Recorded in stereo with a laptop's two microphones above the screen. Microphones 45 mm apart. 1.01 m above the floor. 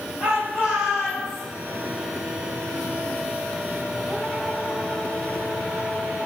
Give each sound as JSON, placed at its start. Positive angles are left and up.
{"t": 0.2, "sound": "a shout", "side_deg": -30, "distance_m": 4.5}